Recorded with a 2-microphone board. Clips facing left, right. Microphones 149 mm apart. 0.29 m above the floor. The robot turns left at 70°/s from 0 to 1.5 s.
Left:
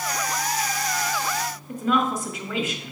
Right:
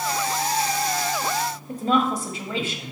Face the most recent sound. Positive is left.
turn(degrees=-30)  # may be behind; listen again after turning